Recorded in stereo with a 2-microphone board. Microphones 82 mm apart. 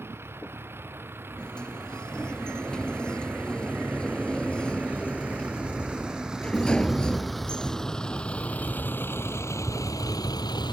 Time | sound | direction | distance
0.0 | a vehicle | 30° right (ahead or behind) | ?
1.4 | a sliding door | 10° left (ahead or behind) | ?